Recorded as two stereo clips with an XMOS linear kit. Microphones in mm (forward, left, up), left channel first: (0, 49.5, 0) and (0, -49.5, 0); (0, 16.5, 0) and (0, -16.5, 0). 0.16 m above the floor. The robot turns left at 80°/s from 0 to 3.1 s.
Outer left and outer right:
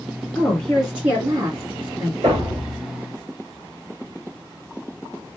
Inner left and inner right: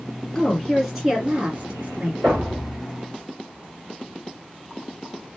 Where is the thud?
115° right, 2 m; by 2.8 s 165° right, 2 m.